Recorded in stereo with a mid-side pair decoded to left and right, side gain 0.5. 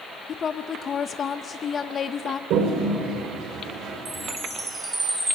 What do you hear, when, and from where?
0.3 s a woman speaking: 45° left, 0.8 m
2.5 s a toilet flushing: 70° right, 3 m
4.0 s a chime: 20° right, 7 m